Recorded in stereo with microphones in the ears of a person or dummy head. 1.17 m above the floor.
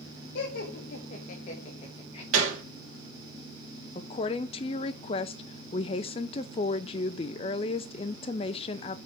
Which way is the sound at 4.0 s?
35° left (ahead or behind).